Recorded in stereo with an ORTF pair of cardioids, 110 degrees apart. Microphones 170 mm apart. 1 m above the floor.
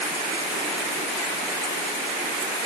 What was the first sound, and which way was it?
Only background noise.